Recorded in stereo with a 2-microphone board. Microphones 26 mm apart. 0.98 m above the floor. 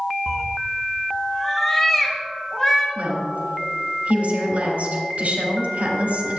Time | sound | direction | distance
0.3 | a cat meowing | 10° right (ahead or behind) | 0.8 m
3.0 | a woman speaking | 70° right (ahead or behind) | 3.5 m